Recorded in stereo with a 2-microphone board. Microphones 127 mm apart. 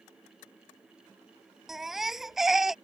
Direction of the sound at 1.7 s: 5° right (ahead or behind).